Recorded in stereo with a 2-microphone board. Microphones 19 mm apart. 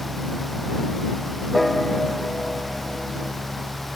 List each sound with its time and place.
1.5 s a piano: 5° left (ahead or behind)